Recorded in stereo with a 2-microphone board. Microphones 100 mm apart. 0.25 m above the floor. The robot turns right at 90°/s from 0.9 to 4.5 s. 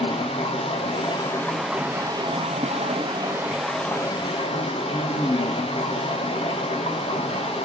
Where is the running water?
110° left, 2 m; by 7.7 s 75° left, 2 m.